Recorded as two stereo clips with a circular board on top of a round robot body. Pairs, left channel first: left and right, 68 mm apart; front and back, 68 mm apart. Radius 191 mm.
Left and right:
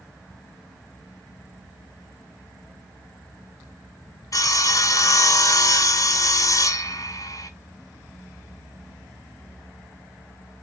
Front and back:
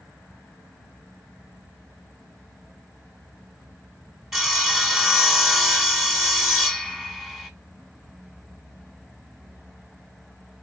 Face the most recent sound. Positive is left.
turn(degrees=100)